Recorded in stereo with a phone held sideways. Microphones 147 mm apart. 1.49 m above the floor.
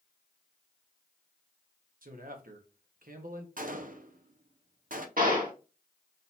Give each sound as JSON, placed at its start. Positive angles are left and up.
{"t": 2.0, "sound": "a man speaking", "side_deg": -70, "distance_m": 1.3}
{"t": 3.6, "sound": "a gunshot", "side_deg": -70, "distance_m": 0.6}
{"t": 5.2, "sound": "a gunshot", "side_deg": -70, "distance_m": 1.8}